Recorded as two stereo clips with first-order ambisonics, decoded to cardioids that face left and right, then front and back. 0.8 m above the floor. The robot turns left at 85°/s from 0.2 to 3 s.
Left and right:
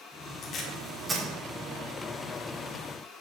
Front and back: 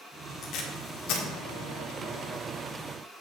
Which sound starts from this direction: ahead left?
Tape being pulled, at 0.4 s.